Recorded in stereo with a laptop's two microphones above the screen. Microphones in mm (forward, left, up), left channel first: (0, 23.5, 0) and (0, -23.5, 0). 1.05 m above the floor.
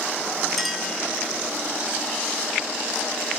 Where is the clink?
5° left (ahead or behind), 2.5 m.